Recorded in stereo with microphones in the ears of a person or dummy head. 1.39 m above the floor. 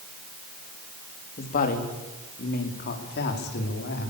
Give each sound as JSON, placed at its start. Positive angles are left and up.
{"t": 1.4, "sound": "a woman speaking", "side_deg": 45, "distance_m": 3.0}